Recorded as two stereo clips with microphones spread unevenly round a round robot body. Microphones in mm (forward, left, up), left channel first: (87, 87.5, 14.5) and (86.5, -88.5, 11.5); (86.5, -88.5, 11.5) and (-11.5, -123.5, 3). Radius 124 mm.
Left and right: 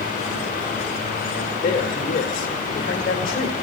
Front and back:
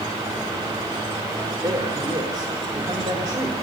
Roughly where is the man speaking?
Behind left.